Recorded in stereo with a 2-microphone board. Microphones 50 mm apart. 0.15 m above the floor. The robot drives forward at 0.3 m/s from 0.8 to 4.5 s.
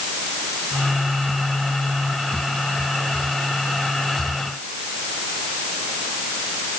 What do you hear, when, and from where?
Only background noise.